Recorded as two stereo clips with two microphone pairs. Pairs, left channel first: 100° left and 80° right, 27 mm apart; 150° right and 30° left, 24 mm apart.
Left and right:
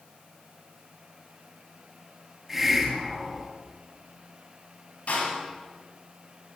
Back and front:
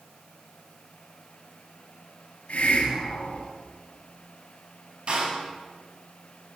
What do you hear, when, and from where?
2.5 s a hiss: 165° right, 8.5 m
5.1 s a door slam: 80° left, 9 m